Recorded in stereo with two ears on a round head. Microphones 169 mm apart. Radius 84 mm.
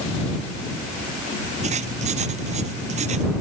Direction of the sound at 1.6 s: 40° right (ahead or behind).